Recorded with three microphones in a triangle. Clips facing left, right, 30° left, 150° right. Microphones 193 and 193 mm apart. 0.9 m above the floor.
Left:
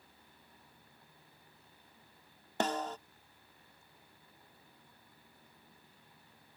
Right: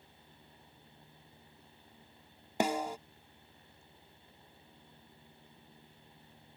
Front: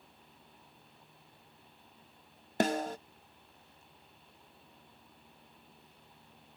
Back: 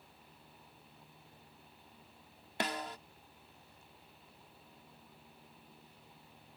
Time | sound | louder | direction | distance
2.6 | a snare drum | right 2 dB, front 9 dB | 15° right | ?